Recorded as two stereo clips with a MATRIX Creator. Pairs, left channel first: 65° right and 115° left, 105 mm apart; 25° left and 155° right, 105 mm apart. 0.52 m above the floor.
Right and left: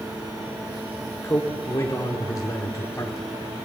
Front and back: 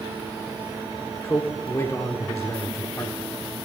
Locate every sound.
1.2 s a man speaking: 25° right, 1.2 m